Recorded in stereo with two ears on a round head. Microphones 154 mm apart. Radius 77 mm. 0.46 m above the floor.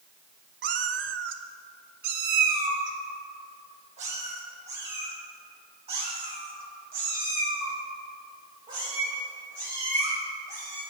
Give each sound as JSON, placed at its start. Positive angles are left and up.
{"t": 0.6, "sound": "a cat meowing", "side_deg": -65, "distance_m": 1.0}